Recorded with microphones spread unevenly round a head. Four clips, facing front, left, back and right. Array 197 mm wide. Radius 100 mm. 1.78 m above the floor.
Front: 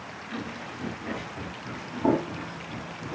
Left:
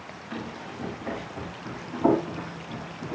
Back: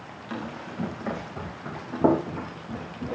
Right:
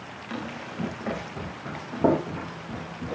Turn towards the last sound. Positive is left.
turn(degrees=-140)